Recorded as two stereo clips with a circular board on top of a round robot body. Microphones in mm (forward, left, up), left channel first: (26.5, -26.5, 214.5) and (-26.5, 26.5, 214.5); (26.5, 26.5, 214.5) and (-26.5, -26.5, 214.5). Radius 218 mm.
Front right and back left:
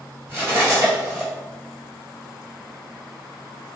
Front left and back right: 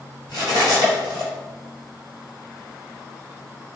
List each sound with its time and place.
0.3 s cutlery clinking: 75° left, 1.6 m